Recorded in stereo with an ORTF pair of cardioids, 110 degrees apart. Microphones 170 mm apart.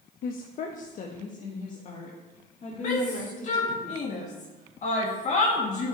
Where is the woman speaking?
60° left, 0.8 m; by 3.8 s 45° left, 3.5 m.